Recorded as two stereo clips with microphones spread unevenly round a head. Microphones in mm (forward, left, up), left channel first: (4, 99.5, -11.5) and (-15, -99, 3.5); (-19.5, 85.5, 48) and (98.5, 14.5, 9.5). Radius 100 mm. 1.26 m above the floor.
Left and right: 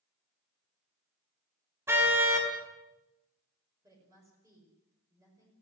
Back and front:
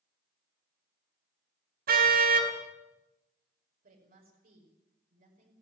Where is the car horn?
20° right, 3.5 m.